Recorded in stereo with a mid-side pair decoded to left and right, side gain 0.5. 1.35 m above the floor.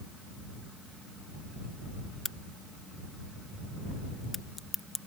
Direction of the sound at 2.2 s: 25° left.